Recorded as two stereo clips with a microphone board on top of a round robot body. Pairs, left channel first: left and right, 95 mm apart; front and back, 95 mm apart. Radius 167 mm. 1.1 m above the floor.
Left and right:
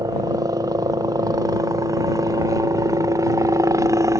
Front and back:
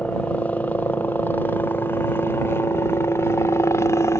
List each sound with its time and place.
0.0 s a helicopter: 70° right; by 4.2 s 50° right